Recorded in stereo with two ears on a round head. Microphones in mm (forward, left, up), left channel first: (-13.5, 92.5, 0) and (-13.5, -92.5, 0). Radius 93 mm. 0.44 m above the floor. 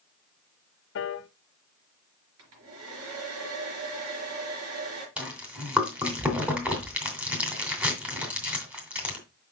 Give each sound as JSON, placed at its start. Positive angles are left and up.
{"t": 0.9, "sound": "a piano", "side_deg": 60, "distance_m": 0.5}
{"t": 2.4, "sound": "a hair dryer", "side_deg": -80, "distance_m": 4.5}
{"t": 5.2, "sound": "chewing", "side_deg": -5, "distance_m": 2.5}